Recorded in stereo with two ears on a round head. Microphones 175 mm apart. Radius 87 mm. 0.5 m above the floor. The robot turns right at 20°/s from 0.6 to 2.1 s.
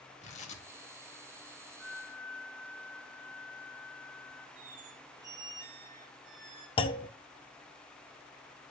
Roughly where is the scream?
I don't hear a scream.